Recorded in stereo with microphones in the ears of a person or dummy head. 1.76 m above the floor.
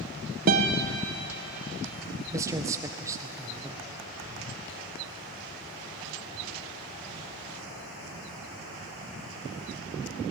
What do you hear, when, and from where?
0.5 s a guitar: 45° right (ahead or behind), 1.6 m
2.3 s a man speaking: 20° right (ahead or behind), 1.3 m